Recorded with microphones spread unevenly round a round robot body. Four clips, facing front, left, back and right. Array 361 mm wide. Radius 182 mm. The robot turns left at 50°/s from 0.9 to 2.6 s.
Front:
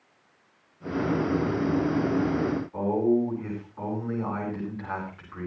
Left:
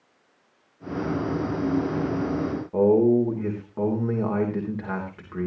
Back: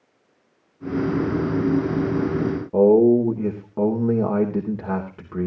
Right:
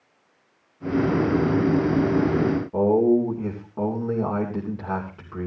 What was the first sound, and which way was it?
A man speaking, straight behind.